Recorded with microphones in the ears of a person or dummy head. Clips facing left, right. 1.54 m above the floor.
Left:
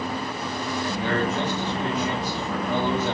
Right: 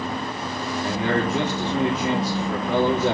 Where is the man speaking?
60° right (ahead or behind), 3 m.